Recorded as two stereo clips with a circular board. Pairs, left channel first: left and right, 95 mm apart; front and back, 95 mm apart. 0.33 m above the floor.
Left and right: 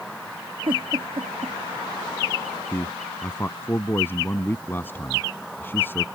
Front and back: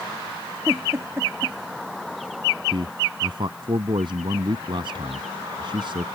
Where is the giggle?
115° right.